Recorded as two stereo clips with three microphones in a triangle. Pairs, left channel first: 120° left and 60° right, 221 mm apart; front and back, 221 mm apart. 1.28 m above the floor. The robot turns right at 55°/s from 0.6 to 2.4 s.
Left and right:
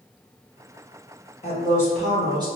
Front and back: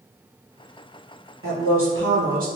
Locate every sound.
1.4 s a woman speaking: 175° left, 1.1 m; by 2.5 s 130° right, 1.1 m